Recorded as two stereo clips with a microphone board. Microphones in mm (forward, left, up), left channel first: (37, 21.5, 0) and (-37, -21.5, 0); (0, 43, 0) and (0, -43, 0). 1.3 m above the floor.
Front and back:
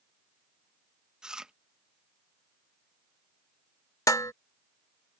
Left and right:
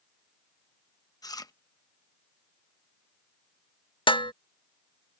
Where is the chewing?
130° left.